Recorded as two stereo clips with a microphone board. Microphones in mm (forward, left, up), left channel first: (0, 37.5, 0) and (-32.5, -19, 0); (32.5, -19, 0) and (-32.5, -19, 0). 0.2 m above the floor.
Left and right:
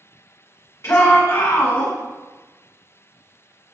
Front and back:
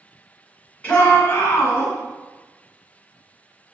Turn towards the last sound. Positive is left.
turn(degrees=25)